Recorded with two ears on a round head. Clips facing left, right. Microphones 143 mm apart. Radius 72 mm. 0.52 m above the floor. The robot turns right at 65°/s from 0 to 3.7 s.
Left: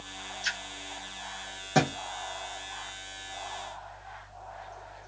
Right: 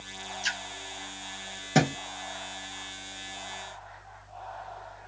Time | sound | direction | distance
0.4 | a splash | 35° right (ahead or behind) | 1.3 m
1.8 | a thud | 25° right (ahead or behind) | 0.7 m